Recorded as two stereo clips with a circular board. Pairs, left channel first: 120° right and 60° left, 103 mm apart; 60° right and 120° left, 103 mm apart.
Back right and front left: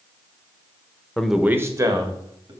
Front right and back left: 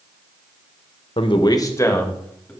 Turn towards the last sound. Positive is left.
turn(degrees=15)